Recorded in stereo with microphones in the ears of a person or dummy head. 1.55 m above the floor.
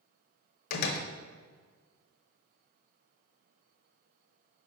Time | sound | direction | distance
0.7 | a door slam | 60° left (ahead or behind) | 0.8 m